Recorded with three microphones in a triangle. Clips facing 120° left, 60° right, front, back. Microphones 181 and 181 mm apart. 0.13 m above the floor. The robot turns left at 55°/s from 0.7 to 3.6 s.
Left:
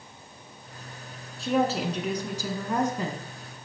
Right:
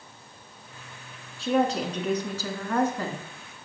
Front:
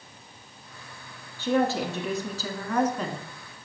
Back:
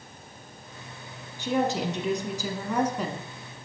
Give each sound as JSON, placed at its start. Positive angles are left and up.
{"t": 1.4, "sound": "a woman speaking", "azimuth_deg": -150, "distance_m": 1.0}